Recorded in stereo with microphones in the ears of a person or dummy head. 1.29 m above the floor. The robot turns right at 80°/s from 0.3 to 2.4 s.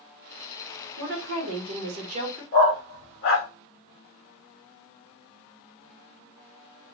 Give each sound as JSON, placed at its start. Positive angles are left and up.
{"t": 1.0, "sound": "a woman speaking", "azimuth_deg": -130, "distance_m": 0.9}
{"t": 2.5, "sound": "a dog barking", "side_deg": 45, "distance_m": 0.9}